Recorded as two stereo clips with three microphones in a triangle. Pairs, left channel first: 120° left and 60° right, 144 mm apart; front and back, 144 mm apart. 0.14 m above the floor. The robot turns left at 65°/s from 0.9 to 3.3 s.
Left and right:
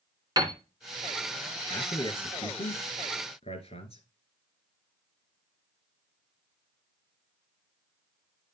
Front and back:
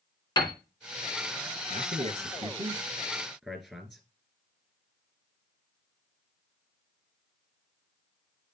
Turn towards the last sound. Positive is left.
turn(degrees=95)